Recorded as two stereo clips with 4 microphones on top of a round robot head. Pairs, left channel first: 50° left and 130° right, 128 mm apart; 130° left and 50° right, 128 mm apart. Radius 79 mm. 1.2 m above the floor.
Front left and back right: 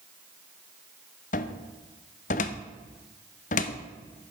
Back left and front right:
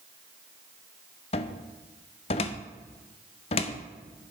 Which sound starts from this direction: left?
A cupboard door, at 1.3 s.